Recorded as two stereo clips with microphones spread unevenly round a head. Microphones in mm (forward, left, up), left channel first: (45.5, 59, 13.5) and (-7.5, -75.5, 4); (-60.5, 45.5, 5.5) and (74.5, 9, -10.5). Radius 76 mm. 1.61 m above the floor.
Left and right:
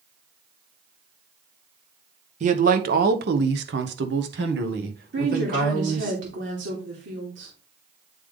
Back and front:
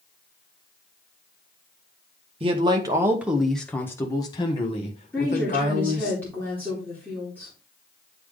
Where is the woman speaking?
115° right, 2.5 m.